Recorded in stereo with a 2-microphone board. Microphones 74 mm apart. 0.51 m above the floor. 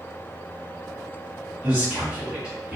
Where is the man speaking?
15° right (ahead or behind), 1.7 m.